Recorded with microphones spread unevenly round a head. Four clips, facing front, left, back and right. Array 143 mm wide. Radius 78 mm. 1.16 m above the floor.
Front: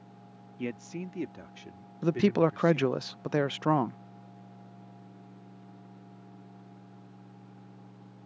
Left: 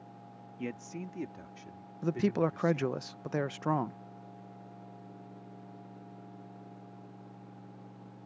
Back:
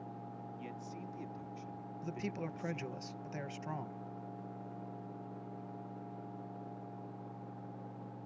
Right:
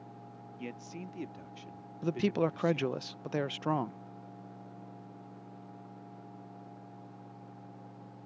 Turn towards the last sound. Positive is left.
turn(degrees=0)